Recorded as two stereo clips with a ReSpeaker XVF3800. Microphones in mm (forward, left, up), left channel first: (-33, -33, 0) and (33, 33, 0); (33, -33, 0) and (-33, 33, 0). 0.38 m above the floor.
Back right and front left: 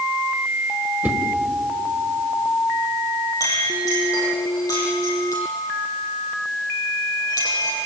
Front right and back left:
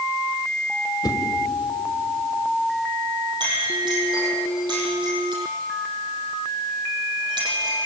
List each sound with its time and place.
1.0 s a whoosh: 20° right, 1.7 m
3.4 s a clink: 170° left, 9 m